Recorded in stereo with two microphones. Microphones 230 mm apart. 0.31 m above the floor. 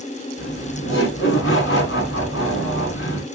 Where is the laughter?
55° left (ahead or behind), 1.7 m.